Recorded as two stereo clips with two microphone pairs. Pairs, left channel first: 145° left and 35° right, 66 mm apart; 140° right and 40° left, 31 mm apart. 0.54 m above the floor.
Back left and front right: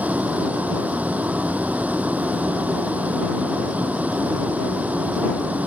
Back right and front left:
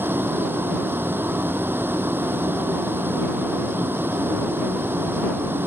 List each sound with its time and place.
0.0 s a vehicle: 35° left